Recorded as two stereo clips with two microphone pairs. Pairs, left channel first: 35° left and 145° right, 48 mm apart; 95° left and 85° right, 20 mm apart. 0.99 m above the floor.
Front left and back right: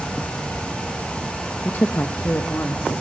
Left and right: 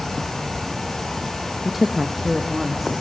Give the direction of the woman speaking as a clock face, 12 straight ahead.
12 o'clock.